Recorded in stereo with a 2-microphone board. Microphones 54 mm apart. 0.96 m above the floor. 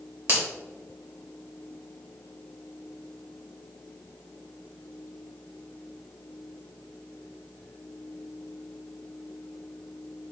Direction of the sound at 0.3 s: 65° right (ahead or behind).